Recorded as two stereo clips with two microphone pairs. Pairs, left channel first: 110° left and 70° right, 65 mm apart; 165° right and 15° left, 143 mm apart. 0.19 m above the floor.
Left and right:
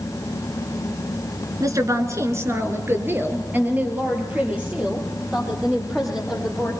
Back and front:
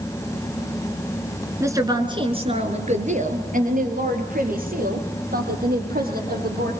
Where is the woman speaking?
55° right, 2.5 m; by 6.7 s 10° left, 7 m.